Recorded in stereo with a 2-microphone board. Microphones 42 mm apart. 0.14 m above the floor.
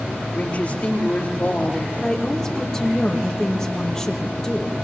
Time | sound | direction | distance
0.3 | a woman speaking | 35° left (ahead or behind) | 9.5 m
2.0 | a woman speaking | 15° left (ahead or behind) | 4.5 m